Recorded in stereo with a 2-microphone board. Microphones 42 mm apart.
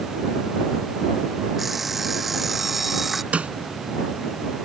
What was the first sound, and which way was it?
An alarm clock, 5° right (ahead or behind).